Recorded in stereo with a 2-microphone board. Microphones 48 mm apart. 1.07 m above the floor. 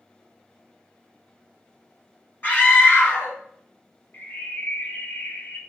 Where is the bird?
40° left (ahead or behind), 1.1 m.